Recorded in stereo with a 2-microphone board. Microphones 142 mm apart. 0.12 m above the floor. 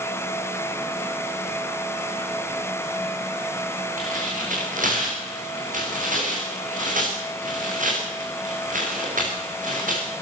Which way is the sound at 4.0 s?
70° right (ahead or behind).